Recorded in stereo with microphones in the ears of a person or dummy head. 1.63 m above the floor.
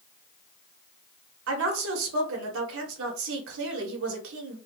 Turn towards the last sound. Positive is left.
turn(degrees=-75)  # may be behind; listen again after turning